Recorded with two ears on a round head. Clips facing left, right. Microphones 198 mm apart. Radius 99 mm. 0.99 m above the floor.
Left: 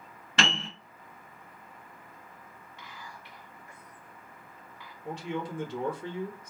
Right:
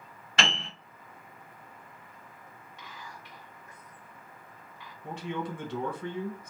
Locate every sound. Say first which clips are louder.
0.4 s a piano: left 2 dB; 70° left (ahead or behind), 1.1 m
2.8 s whispering: right 1 dB; 10° right (ahead or behind), 1.3 m
5.0 s a man speaking: even; 45° right (ahead or behind), 1.1 m